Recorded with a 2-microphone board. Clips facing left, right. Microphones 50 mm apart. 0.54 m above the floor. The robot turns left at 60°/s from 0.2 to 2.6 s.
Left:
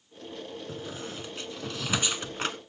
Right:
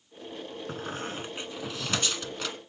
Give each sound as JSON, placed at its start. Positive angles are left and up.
{"t": 0.7, "sound": "a squeak", "side_deg": -60, "distance_m": 1.0}